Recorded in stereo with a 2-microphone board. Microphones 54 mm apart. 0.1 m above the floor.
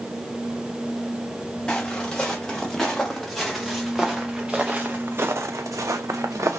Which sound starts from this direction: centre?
Footsteps, at 1.7 s.